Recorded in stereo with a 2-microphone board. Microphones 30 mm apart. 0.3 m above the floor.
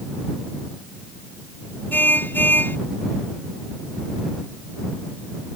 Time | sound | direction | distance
1.9 | a car horn | 85° left | ?